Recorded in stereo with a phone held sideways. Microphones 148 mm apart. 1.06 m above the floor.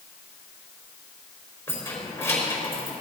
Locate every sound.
1.7 s keys jangling: 15° left (ahead or behind), 3.5 m